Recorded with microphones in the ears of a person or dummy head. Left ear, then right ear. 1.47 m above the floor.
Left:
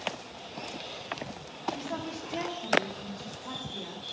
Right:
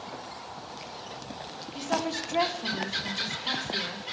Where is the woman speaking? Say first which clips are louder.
Right 7 dB; 50° right (ahead or behind), 0.7 m; by 4.0 s 75° right (ahead or behind), 1.8 m.